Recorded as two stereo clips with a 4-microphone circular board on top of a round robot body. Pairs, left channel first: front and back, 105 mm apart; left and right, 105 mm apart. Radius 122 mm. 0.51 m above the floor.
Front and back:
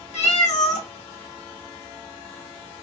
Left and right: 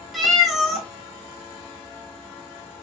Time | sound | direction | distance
0.1 | a cat meowing | straight ahead | 0.9 m